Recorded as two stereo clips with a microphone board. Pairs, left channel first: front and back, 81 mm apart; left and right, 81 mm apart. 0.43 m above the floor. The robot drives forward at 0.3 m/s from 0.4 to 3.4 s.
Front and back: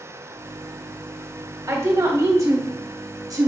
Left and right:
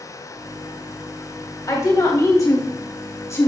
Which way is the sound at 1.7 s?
130° left.